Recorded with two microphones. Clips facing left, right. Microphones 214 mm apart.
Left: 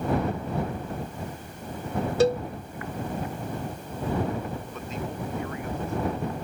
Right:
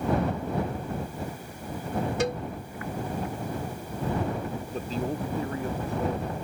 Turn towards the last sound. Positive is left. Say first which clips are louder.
# right 4 dB
turn(degrees=-35)  # may be behind; listen again after turning